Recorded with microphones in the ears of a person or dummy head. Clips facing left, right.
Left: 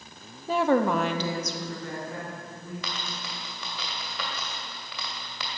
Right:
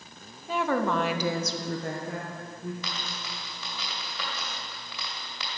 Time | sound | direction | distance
0.5 | a woman speaking | 45° left (ahead or behind) | 0.8 m
2.8 | a dropped coin | 55° left (ahead or behind) | 2.5 m